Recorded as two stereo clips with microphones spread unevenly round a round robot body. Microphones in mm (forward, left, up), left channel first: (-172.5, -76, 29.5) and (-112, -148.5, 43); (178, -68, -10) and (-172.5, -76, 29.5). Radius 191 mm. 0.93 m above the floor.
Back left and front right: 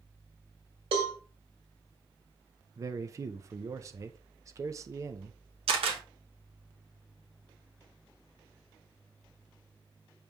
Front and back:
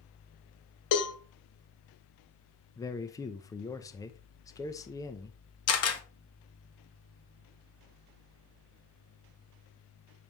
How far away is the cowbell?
About 1.5 m.